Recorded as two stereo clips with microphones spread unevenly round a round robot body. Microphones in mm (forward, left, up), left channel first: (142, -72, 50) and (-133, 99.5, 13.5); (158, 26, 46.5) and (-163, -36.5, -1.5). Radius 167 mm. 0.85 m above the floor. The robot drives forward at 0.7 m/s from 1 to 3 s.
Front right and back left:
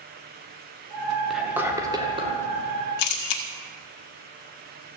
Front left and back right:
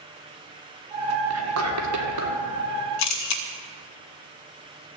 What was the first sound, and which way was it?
Whispering, 125° right.